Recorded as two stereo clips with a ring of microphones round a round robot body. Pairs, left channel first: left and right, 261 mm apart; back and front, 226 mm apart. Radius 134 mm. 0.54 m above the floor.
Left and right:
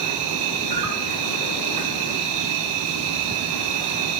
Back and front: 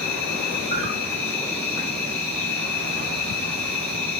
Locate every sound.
0.0 s an insect: 95° right, 4 m